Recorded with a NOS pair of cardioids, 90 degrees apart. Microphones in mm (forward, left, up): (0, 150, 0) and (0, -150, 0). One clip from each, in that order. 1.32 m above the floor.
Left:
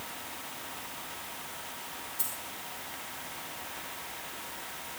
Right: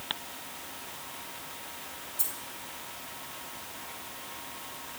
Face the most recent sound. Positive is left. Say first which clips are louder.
# right 3 dB
turn(degrees=-25)